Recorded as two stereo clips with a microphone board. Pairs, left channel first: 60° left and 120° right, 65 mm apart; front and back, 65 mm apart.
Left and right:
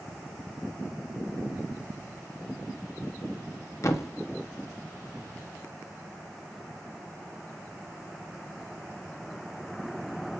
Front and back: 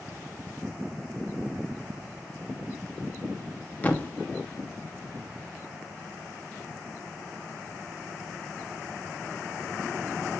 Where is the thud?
60° left, 0.5 m.